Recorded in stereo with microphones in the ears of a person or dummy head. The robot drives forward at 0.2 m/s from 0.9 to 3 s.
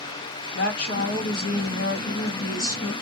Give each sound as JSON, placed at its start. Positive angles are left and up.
{"t": 0.5, "sound": "a woman speaking", "side_deg": 60, "distance_m": 1.0}